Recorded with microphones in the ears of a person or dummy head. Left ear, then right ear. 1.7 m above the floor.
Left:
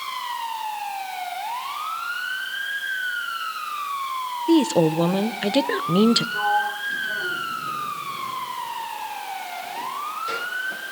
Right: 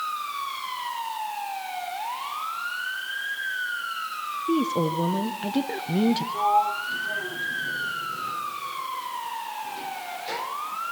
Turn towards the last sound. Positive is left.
turn(degrees=-10)  # may be behind; listen again after turning